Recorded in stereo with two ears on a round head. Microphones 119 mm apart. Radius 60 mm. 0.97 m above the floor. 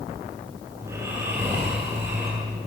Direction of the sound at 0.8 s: 20° right (ahead or behind).